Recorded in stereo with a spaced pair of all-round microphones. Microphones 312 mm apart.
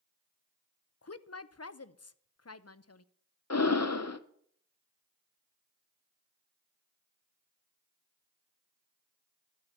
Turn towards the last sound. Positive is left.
turn(degrees=55)  # may be behind; listen again after turning